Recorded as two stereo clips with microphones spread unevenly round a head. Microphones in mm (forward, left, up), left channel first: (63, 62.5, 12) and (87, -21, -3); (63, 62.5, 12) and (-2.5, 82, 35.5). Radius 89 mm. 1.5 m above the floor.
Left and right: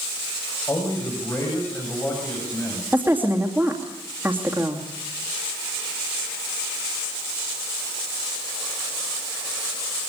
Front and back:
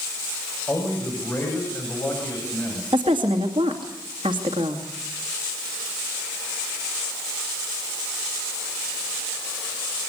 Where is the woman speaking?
155° right, 2.5 m.